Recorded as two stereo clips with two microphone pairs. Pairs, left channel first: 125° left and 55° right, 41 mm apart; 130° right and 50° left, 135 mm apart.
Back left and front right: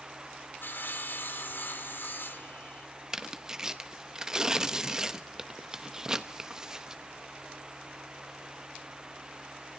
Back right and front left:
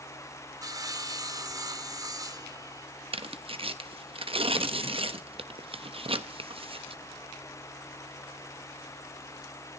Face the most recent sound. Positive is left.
turn(degrees=15)